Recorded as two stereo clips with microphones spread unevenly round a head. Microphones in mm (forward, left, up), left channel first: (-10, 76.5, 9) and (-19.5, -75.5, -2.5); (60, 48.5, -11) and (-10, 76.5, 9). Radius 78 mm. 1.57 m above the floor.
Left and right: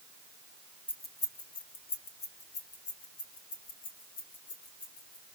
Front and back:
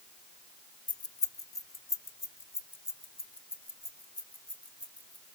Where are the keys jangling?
10° left, 1.0 m; by 5.2 s 50° left, 3.5 m.